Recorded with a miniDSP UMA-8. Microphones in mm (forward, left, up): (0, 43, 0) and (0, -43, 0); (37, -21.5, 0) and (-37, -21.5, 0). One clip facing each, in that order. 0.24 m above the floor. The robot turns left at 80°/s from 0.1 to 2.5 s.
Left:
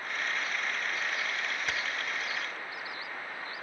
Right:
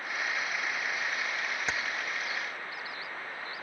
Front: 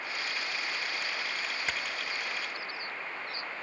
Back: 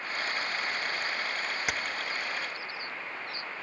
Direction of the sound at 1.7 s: 125° right.